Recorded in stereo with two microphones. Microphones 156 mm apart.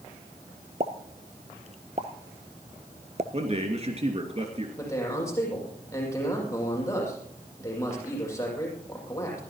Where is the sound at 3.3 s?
45° right (ahead or behind), 2.5 m.